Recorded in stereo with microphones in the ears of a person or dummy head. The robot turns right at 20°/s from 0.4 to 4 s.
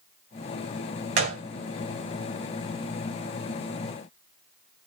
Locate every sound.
1.2 s a gunshot: 30° right (ahead or behind), 0.6 m; by 1.4 s 35° right (ahead or behind), 0.6 m